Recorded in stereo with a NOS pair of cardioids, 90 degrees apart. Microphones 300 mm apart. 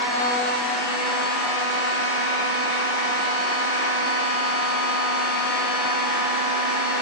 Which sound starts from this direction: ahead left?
A machine running, at 0.0 s.